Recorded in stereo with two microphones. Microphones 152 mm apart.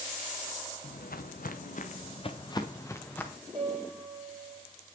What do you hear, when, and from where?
0.8 s footsteps: 80° left, 1.2 m; by 3.3 s 10° left (ahead or behind), 1.6 m
3.5 s a piano: 40° right (ahead or behind), 1.5 m